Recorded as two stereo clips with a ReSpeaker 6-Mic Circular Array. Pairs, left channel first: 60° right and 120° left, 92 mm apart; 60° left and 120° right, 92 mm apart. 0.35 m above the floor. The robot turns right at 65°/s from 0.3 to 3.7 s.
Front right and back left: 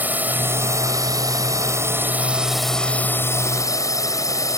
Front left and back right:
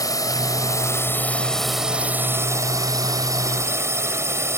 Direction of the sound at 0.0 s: 60° left.